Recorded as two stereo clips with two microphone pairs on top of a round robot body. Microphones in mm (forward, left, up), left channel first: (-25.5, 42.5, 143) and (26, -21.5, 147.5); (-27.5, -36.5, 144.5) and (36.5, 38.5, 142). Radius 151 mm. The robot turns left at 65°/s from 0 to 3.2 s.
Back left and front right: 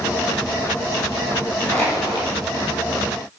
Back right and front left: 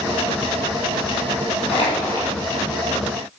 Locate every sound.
1.7 s crushing: 160° right, 3.5 m; by 2.3 s 160° left, 3.5 m